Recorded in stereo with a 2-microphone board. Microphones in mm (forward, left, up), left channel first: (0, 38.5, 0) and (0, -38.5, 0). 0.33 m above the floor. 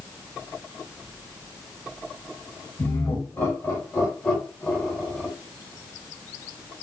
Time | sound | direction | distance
2.8 | laughter | 30° left (ahead or behind) | 1.6 m